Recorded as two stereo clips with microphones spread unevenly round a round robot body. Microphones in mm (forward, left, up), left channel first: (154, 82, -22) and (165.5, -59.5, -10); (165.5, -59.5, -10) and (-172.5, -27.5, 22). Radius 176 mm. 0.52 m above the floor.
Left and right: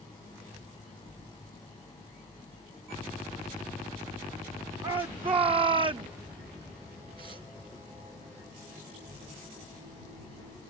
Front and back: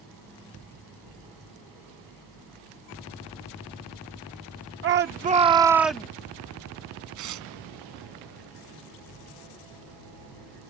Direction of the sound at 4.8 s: 140° right.